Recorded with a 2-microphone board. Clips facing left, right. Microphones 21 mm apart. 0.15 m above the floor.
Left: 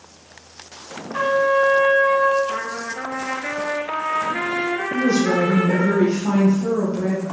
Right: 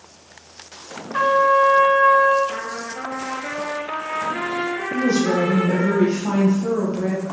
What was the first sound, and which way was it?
A trumpet, 30° right (ahead or behind).